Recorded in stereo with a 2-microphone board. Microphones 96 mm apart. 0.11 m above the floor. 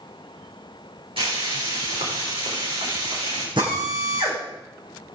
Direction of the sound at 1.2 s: 75° right (ahead or behind).